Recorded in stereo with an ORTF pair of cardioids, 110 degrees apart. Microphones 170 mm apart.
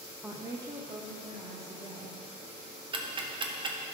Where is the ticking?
30° right, 1.0 m.